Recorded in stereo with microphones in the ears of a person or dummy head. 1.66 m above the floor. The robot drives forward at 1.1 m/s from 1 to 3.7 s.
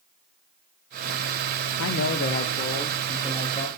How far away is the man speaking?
About 0.6 m.